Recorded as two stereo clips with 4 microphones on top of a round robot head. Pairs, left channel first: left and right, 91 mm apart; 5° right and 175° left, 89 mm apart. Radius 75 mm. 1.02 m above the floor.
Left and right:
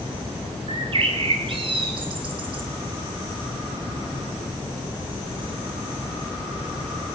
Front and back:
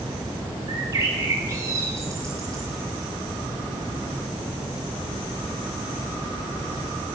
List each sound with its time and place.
0.7 s a bird: 115° right, 3 m